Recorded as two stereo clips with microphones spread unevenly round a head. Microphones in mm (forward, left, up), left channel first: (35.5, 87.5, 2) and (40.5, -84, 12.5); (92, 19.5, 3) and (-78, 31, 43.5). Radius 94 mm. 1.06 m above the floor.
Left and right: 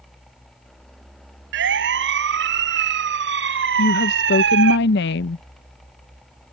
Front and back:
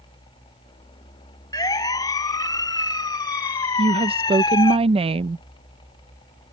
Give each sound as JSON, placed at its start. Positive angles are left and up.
{"t": 1.5, "sound": "a siren", "azimuth_deg": -75}
{"t": 3.8, "sound": "a woman speaking", "azimuth_deg": 115}